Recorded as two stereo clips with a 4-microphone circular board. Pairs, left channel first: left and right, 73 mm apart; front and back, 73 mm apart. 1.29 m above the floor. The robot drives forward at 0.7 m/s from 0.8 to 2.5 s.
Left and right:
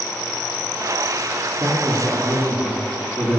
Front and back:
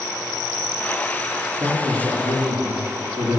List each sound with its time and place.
1.6 s a man speaking: 145° right, 1.9 m; by 3.4 s 155° right, 2.5 m